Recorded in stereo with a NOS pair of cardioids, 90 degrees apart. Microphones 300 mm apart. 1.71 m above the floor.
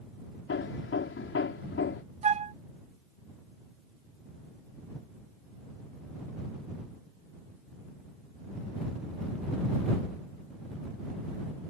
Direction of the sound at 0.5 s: 40° left.